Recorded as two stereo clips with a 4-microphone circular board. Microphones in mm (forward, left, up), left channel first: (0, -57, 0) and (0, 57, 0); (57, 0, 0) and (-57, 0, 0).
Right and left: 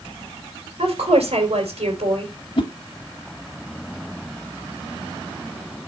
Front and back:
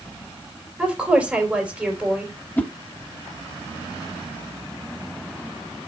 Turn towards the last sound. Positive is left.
turn(degrees=-70)